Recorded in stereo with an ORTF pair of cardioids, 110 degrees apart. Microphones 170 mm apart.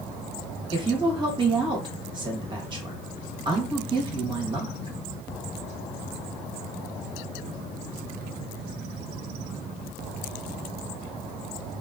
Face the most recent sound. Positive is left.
turn(degrees=-25)